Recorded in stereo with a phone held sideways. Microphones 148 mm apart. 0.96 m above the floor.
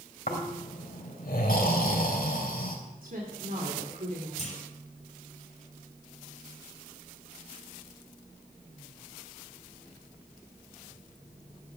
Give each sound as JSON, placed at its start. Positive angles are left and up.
{"t": 0.3, "sound": "snoring", "side_deg": 85, "distance_m": 3.0}
{"t": 3.0, "sound": "a woman speaking", "side_deg": -75, "distance_m": 2.5}
{"t": 4.4, "sound": "a clunk", "side_deg": 50, "distance_m": 4.5}